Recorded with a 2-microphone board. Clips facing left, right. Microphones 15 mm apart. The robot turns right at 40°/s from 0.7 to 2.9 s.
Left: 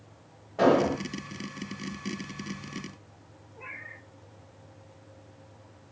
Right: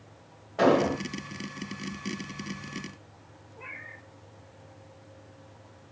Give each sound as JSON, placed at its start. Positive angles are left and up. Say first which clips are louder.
{"t": 0.6, "sound": "an explosion", "louder": "even", "side_deg": -30, "distance_m": 1.1}
{"t": 3.6, "sound": "a cat meowing", "louder": "even", "side_deg": -5, "distance_m": 1.2}